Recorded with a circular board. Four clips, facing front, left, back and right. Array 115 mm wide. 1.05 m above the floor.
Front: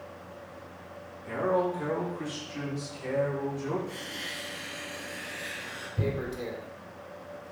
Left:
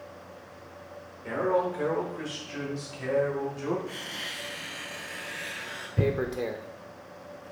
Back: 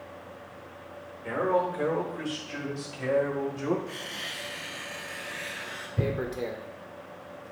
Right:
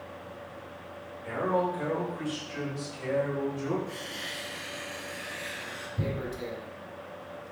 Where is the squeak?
130° left, 5 m.